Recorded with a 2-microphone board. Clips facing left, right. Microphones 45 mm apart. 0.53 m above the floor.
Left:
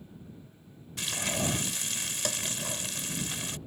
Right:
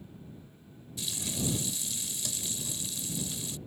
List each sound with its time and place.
1.0 s frying: 60° left (ahead or behind)